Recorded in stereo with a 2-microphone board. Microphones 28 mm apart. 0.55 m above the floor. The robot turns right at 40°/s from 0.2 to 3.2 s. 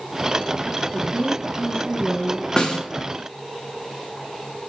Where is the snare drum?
30° left (ahead or behind), 0.8 m.